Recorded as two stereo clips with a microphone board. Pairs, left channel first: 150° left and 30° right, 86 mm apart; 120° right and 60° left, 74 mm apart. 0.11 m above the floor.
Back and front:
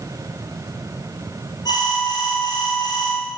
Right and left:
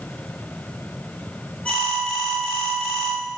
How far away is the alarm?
About 1.7 m.